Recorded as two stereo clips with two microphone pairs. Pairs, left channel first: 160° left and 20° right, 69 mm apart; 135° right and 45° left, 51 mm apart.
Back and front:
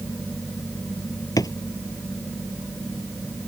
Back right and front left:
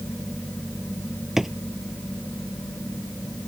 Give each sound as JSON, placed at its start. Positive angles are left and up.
{"t": 1.4, "sound": "a drawer", "azimuth_deg": 130}